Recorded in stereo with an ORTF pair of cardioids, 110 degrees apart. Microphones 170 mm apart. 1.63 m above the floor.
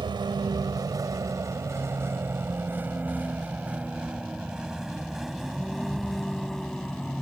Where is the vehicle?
30° right; by 7.2 s 5° left.